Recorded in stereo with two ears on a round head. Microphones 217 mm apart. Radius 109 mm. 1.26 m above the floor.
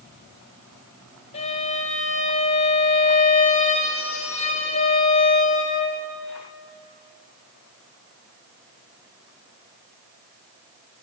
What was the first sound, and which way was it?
A violin, 25° left (ahead or behind).